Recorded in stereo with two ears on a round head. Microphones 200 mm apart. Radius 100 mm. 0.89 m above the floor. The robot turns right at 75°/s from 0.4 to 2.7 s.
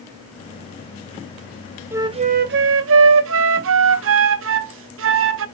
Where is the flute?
170° right, 0.5 m; by 5.5 s 110° right, 0.5 m.